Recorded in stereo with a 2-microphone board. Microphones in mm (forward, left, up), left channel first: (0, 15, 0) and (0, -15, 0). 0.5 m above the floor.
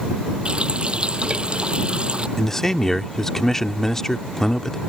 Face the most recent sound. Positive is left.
turn(degrees=15)  # may be behind; listen again after turning